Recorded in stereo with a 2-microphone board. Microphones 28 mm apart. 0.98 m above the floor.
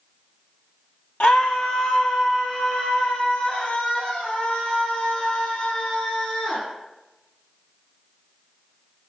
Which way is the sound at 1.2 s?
70° left (ahead or behind).